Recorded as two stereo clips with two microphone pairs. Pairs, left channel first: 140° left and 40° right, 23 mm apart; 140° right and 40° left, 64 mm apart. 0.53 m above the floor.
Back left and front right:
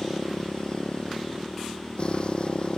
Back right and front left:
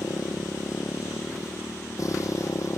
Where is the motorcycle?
170° right; by 2.8 s 175° right.